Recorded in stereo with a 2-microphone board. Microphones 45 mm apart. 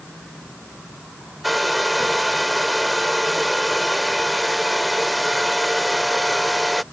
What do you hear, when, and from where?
1.4 s a hair dryer: centre (ahead or behind)